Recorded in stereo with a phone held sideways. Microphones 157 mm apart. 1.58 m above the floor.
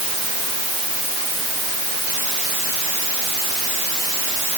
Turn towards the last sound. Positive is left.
No sound to turn to.